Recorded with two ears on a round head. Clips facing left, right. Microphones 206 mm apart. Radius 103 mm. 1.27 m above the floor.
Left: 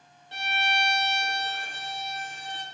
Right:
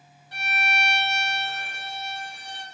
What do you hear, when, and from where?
0.3 s a violin: 25° left (ahead or behind), 1.0 m